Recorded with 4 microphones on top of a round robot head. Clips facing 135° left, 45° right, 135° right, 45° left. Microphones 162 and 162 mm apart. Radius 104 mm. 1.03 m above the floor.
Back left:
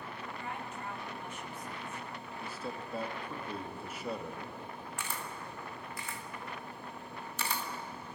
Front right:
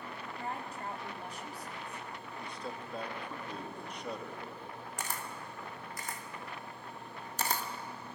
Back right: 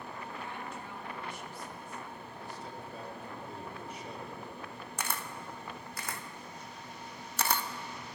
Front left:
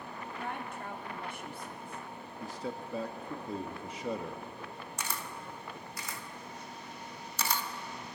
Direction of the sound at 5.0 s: 95° right.